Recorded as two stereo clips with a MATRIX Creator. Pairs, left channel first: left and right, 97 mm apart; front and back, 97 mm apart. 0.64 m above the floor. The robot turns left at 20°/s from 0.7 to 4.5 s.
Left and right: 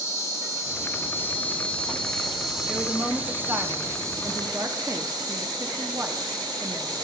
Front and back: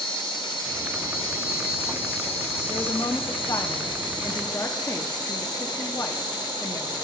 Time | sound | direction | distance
0.0 | an insect | 35° left | 1.8 m
2.7 | a woman speaking | 10° right | 0.7 m